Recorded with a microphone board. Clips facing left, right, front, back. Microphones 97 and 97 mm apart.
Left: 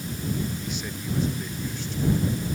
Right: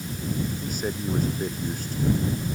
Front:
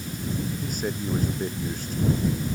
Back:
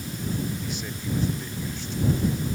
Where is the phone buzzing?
I don't hear a phone buzzing.